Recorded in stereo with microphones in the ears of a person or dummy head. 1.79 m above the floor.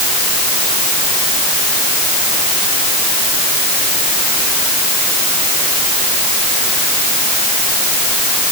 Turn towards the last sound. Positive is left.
No sound to turn to.